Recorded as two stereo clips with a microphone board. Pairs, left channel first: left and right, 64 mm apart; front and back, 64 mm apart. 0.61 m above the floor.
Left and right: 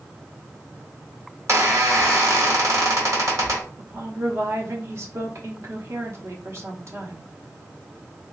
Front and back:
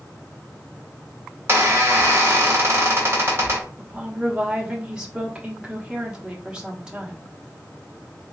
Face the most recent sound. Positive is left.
turn(degrees=-105)